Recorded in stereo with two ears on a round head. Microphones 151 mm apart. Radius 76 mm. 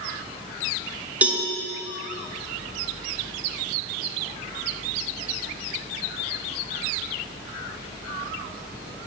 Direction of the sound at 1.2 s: 10° right (ahead or behind).